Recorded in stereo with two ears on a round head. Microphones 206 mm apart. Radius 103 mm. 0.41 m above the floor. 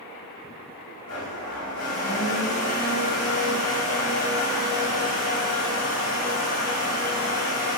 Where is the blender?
70° left (ahead or behind), 1.1 m.